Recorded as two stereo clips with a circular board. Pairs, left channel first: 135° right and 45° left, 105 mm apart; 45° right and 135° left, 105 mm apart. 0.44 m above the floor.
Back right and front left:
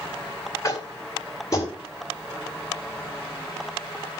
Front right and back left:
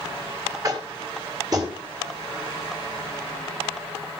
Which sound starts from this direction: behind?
Tapping, at 0.6 s.